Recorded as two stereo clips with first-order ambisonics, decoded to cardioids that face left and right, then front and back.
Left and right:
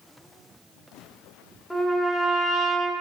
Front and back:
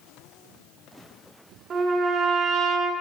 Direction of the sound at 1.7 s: 170° left.